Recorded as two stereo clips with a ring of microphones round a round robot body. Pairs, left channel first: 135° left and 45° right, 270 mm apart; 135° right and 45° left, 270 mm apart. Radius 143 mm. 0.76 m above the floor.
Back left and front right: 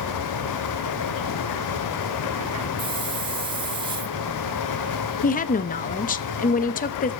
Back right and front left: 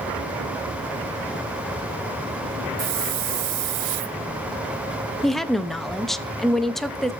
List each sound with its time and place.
2.8 s a hiss: 25° left, 1.1 m
5.2 s a woman speaking: 135° left, 0.9 m